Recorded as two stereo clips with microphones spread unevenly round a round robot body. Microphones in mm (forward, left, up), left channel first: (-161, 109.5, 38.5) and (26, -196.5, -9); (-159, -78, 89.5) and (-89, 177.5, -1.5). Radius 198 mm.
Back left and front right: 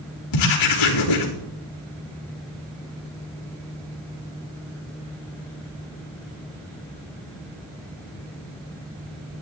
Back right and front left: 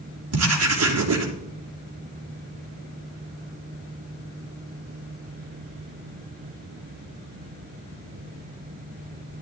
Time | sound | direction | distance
0.3 | writing | 90° left | 3 m